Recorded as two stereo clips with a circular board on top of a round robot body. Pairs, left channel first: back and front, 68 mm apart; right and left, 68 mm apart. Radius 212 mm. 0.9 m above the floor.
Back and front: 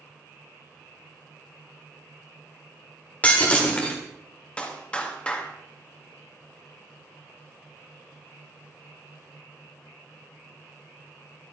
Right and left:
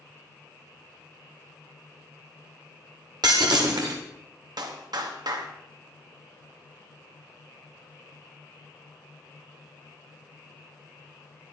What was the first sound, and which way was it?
Breaking glass, 110° left.